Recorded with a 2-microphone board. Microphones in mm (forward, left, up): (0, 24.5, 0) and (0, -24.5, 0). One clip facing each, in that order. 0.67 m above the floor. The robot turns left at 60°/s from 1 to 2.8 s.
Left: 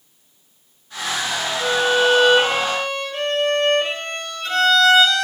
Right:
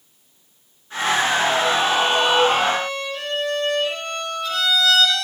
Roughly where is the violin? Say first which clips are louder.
Left 1 dB; behind left.